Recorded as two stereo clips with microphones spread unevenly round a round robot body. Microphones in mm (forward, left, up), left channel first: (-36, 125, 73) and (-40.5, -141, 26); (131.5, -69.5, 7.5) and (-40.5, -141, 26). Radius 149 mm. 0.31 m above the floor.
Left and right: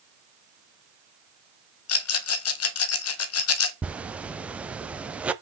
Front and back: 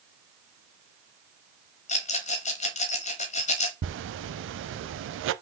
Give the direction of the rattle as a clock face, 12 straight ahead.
10 o'clock.